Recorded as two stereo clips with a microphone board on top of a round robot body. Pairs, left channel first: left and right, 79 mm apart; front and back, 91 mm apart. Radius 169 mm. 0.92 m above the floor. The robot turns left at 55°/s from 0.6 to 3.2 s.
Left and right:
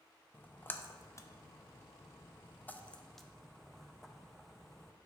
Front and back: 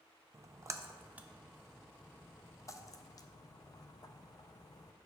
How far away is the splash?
About 0.5 m.